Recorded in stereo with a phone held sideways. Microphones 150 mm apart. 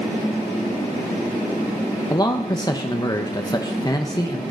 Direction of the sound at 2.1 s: 25° left (ahead or behind).